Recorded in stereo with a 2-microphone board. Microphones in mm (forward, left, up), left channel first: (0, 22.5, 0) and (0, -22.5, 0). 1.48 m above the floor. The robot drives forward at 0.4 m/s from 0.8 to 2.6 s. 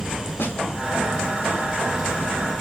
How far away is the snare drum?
About 1.0 m.